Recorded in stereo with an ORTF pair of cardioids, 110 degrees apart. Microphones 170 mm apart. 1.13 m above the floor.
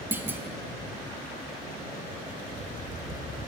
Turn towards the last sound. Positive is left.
turn(degrees=-10)